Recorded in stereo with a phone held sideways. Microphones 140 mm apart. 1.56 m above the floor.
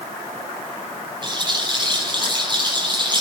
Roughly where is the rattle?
Right.